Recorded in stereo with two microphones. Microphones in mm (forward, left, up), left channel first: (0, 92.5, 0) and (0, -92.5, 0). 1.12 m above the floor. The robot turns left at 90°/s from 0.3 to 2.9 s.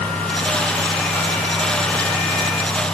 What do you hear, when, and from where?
Only background noise.